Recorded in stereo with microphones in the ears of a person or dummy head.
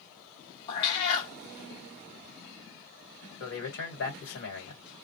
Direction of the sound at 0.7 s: 25° left (ahead or behind).